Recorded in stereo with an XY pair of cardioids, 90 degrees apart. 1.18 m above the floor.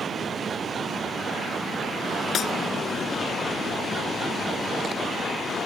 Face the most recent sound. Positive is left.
turn(degrees=65)